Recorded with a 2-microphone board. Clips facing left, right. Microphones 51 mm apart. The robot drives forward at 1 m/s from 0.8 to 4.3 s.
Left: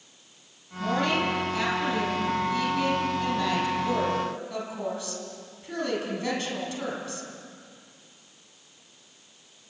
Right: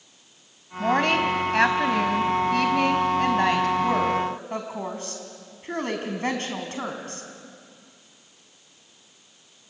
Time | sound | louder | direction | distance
0.8 | a woman speaking | right 4 dB | 55° right (ahead or behind) | 3 m